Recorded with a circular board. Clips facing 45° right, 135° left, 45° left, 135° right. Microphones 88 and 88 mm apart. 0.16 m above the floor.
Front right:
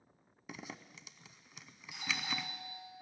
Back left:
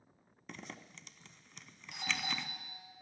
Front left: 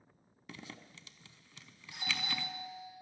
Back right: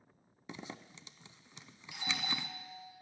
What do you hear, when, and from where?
0.5 s a zipper: 120° right, 0.5 m
1.9 s a doorbell: 105° left, 3.5 m